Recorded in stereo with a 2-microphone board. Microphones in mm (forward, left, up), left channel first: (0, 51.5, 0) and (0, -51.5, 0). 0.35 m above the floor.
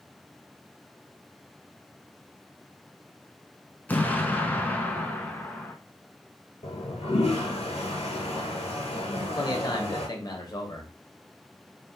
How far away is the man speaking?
About 1.3 m.